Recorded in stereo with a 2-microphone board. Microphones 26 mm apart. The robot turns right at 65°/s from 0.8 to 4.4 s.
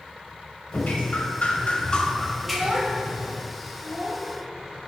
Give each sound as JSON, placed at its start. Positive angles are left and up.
{"t": 0.7, "sound": "dripping", "azimuth_deg": 75, "distance_m": 1.0}
{"t": 2.4, "sound": "a child speaking", "side_deg": -35, "distance_m": 1.3}